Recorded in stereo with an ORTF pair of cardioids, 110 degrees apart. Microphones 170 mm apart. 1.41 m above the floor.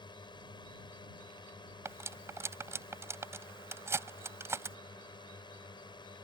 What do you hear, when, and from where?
0.0 s a drone: 25° left
1.9 s cutlery clinking: 15° right